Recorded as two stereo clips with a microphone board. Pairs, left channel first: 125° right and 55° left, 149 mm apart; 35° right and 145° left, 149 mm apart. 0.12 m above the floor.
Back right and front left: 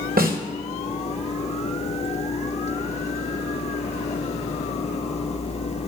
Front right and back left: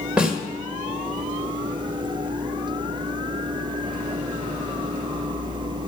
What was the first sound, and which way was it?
A snare drum, 65° left.